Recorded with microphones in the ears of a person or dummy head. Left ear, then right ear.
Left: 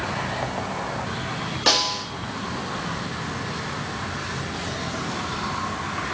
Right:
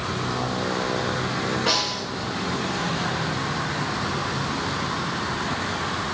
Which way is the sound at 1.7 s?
50° left (ahead or behind).